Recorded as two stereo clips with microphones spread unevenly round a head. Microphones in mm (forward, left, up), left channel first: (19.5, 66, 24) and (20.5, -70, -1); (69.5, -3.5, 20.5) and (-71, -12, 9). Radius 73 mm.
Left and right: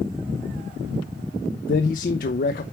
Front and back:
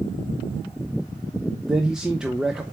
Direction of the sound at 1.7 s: 95° left.